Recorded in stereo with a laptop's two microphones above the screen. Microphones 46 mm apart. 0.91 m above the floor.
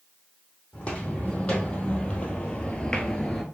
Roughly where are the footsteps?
Left.